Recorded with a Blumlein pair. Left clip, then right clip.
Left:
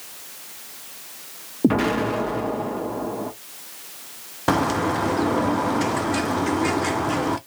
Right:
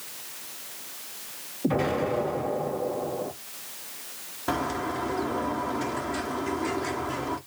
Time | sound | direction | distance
1.6 | an explosion | 55° left | 1.4 m
4.5 | a bird | 30° left | 0.6 m